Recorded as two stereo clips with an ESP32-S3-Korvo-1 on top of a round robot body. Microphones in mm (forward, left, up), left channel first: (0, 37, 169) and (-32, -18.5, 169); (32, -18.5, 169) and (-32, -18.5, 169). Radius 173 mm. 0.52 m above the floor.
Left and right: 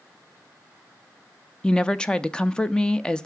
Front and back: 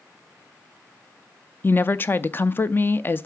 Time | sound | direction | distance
1.6 | a woman speaking | 5° right | 0.7 m